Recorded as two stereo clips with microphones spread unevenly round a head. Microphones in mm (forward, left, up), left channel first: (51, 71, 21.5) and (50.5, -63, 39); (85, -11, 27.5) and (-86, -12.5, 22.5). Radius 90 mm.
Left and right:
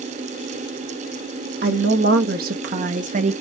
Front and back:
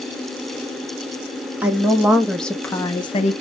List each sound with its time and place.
1.6 s a woman speaking: 100° right, 1.2 m; by 3.4 s 45° right, 0.5 m